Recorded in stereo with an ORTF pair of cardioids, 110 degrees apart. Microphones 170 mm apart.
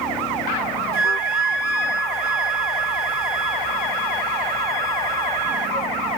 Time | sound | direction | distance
0.9 | a flute | 65° right | 1.1 m